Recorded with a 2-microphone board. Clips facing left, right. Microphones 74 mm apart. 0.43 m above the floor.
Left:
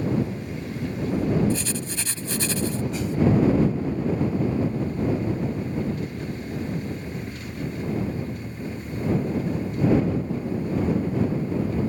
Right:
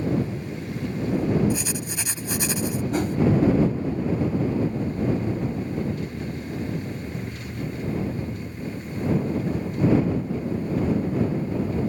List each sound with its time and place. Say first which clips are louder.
1.5 s writing: even; 15° right (ahead or behind)
2.9 s a whoosh: right 3 dB; 50° right (ahead or behind)